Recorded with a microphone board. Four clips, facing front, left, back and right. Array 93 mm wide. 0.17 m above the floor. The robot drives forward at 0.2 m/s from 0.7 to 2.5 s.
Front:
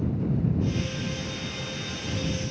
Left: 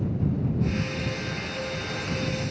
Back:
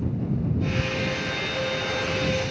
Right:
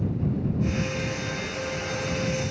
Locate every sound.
Only background noise.